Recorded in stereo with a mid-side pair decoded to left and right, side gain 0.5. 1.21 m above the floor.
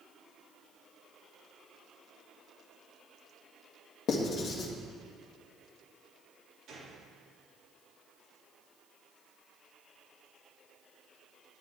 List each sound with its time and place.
4.1 s writing: 65° left, 1.8 m
6.7 s a gunshot: 65° right, 3.5 m